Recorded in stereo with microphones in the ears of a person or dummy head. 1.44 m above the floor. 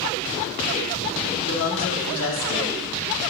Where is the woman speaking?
80° left, 2.5 m.